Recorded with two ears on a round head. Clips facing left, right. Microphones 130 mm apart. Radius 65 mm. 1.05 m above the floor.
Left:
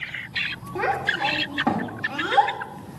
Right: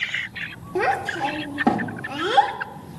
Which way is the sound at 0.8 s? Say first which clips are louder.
Right 3 dB; 35° right (ahead or behind).